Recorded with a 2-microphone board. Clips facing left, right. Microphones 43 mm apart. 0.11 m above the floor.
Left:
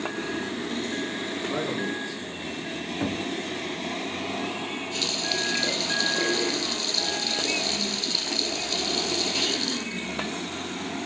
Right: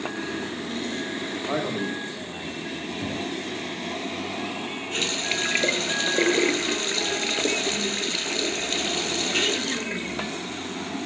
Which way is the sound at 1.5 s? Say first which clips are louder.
Right 2 dB; 45° right (ahead or behind).